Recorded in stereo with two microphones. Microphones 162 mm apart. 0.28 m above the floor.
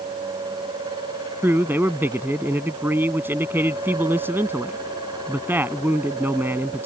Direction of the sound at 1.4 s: 15° right (ahead or behind).